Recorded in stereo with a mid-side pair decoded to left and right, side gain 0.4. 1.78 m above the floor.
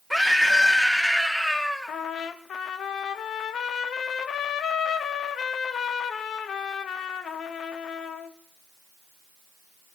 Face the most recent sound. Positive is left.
turn(degrees=65)